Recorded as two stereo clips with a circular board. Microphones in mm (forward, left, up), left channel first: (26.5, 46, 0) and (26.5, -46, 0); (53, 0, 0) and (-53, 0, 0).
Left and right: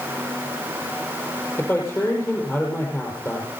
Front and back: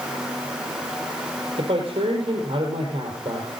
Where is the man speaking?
150° left, 4.5 m.